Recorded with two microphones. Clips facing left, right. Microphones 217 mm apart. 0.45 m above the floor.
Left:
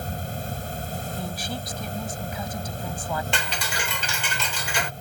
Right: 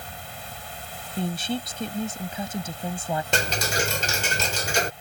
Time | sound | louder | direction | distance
0.0 | an insect | left 9 dB | 45° left (ahead or behind) | ?
1.2 | a woman speaking | right 10 dB | 25° right (ahead or behind) | ?
3.3 | ticking | right 5 dB | 45° right (ahead or behind) | ?